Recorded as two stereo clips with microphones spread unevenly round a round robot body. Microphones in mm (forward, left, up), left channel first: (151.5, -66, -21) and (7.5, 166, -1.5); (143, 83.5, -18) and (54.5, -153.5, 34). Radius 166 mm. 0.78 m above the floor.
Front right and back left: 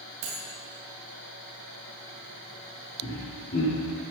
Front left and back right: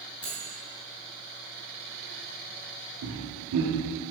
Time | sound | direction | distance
0.2 | cutlery clinking | 145° left | 2.5 m
3.0 | laughter | 120° right | 1.3 m